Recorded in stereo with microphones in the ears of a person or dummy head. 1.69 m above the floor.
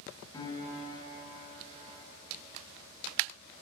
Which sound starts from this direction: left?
A piano, at 0.3 s.